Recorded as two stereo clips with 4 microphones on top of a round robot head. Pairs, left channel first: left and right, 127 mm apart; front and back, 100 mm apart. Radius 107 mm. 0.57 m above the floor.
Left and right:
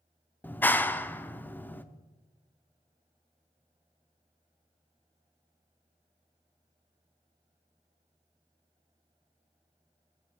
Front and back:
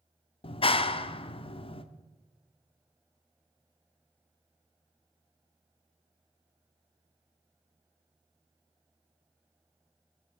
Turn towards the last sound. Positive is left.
turn(degrees=15)